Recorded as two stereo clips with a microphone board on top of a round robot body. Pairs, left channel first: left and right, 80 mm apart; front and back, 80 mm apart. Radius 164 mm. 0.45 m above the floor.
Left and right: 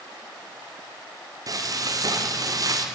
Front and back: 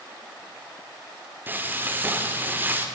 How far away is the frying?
About 2.5 m.